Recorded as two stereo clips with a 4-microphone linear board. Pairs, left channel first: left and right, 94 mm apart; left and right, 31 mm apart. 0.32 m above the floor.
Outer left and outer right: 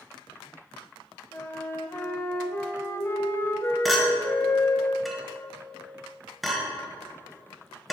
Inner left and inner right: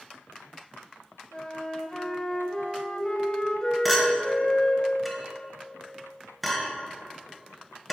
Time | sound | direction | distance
1.3 | a flute | 25° left (ahead or behind) | 0.8 m
3.9 | a clink | centre (ahead or behind) | 1.1 m